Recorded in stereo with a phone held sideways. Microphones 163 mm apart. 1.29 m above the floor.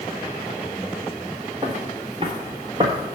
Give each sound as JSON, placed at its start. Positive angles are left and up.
{"t": 1.6, "sound": "footsteps", "side_deg": -30, "distance_m": 1.4}